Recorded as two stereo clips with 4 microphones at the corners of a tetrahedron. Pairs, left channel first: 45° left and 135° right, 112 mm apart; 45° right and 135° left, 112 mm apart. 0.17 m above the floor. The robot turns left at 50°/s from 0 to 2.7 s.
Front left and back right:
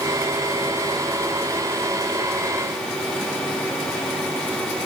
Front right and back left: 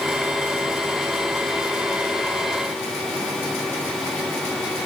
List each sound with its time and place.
Only background noise.